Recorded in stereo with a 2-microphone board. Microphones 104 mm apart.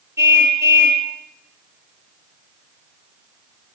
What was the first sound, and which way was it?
A car horn, 25° right (ahead or behind).